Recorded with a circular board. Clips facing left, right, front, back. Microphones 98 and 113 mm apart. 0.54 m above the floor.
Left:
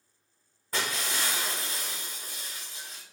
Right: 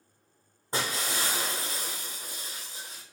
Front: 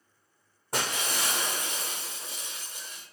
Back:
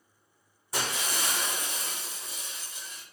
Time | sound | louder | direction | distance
0.7 | breaking glass | right 1 dB, front 1 dB | 30° right | 1.7 m